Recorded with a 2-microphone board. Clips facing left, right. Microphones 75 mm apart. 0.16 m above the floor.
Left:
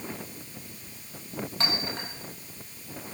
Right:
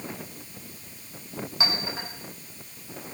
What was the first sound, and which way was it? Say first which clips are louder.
A clink: right 2 dB; 5° right (ahead or behind).